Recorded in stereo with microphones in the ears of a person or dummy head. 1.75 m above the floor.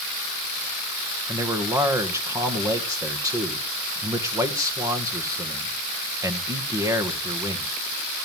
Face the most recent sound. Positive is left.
turn(degrees=-15)  # may be behind; listen again after turning